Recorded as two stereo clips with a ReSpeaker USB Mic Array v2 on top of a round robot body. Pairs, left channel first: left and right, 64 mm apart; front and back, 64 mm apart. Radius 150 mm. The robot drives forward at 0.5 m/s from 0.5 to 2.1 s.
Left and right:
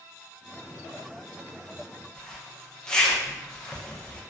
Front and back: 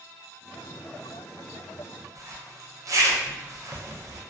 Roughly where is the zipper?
Behind.